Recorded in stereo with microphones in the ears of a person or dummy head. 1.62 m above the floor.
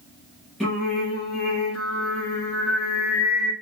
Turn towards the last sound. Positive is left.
turn(degrees=0)  # may be behind; listen again after turning